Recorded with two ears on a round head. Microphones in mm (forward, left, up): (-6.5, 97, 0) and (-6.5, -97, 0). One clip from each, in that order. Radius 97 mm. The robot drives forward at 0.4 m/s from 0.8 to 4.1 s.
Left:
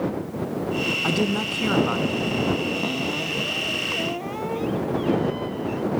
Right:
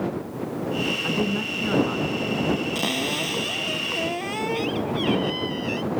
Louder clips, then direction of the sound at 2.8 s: Right 1 dB; 65° right (ahead or behind).